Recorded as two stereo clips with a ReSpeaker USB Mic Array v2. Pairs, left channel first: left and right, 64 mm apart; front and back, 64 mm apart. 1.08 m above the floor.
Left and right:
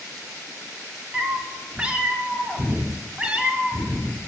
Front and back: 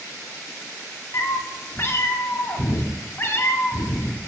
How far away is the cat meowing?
About 0.7 m.